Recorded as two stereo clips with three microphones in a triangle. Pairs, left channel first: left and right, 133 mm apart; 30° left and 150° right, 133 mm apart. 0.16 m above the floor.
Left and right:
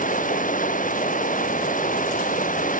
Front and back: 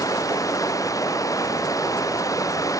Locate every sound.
0.0 s running water: 95° left